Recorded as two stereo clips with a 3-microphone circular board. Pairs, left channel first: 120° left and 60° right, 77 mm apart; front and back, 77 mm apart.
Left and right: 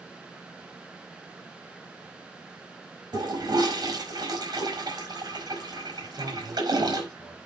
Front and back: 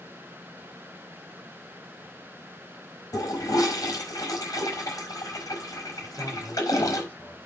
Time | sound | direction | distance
3.1 | a toilet flushing | 40° right | 4.5 m
6.0 | a man speaking | 70° right | 5.5 m